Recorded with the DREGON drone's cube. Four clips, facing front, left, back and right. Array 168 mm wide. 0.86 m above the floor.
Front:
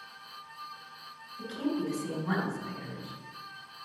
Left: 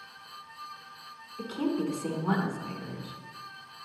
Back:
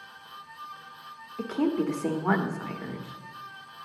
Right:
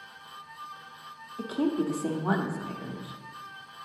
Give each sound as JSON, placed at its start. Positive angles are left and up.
{"t": 1.4, "sound": "a woman speaking", "azimuth_deg": -155, "distance_m": 1.2}